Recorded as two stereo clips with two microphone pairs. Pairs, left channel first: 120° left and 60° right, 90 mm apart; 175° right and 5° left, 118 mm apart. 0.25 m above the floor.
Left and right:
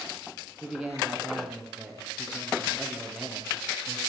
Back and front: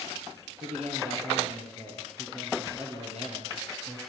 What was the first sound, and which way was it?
A man speaking, 25° left.